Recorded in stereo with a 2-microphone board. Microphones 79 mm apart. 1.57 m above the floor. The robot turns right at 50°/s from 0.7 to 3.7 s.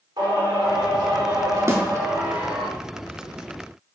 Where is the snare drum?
35° right (ahead or behind), 1.4 m.